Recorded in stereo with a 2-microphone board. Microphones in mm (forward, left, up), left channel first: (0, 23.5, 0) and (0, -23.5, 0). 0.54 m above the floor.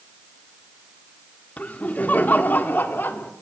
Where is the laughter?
30° left (ahead or behind), 1.5 m; by 3.3 s 45° left (ahead or behind), 1.7 m.